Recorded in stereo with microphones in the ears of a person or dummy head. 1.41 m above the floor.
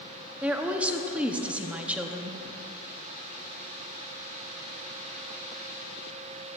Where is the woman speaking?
5° right (ahead or behind), 0.6 m.